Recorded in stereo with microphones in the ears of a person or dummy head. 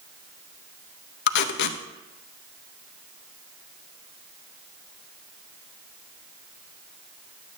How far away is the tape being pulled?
About 1.0 m.